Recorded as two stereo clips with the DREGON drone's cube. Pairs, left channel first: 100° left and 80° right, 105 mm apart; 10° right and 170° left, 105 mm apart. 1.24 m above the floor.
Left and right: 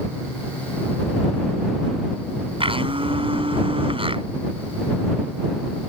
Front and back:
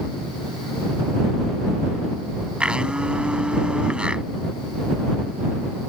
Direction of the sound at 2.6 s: 110° right.